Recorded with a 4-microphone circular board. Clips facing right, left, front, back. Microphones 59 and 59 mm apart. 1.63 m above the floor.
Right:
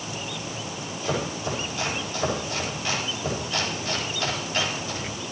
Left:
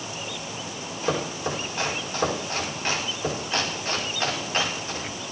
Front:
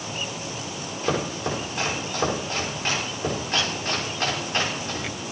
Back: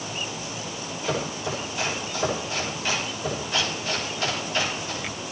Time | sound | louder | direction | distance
1.0 | chopping | left 1 dB, front 3 dB | 40° left | 5.5 m